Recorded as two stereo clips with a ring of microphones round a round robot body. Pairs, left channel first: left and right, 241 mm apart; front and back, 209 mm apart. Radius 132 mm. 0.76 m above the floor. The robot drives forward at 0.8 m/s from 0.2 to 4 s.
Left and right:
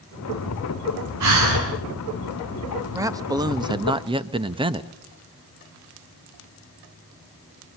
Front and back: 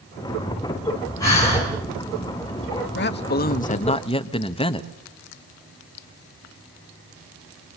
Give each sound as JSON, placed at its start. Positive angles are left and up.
{"t": 1.2, "sound": "breathing", "azimuth_deg": -75, "distance_m": 9.5}
{"t": 2.9, "sound": "a man speaking", "azimuth_deg": -15, "distance_m": 1.6}